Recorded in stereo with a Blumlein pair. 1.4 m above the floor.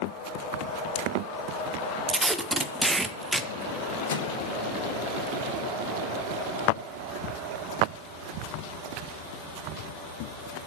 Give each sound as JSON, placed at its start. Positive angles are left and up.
{"t": 2.1, "sound": "tape being pulled", "azimuth_deg": -10, "distance_m": 0.6}
{"t": 4.1, "sound": "a microwave", "azimuth_deg": 60, "distance_m": 1.1}